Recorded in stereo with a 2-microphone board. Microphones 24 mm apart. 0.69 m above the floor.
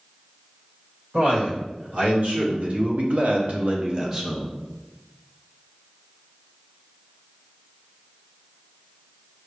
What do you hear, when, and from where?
1.1 s a man speaking: 60° right (ahead or behind), 2 m; by 4.5 s 10° right (ahead or behind), 0.7 m